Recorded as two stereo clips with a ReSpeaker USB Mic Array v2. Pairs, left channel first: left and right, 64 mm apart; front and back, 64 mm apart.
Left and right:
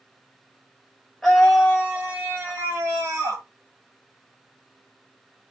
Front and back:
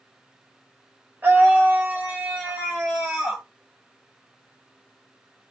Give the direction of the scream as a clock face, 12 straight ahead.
6 o'clock.